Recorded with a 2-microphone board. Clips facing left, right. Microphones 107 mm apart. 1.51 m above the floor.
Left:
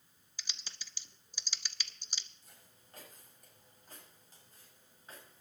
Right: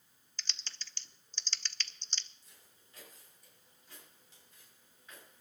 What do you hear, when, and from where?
0.4 s typing on a keyboard: 10° left (ahead or behind), 0.5 m
2.4 s footsteps: 55° left (ahead or behind), 7.5 m; by 5.4 s 35° left (ahead or behind), 7.5 m